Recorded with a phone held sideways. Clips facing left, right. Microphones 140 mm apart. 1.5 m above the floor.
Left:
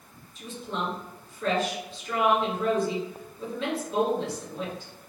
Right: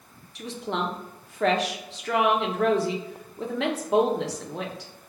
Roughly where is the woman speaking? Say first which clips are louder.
Right 4 dB; right.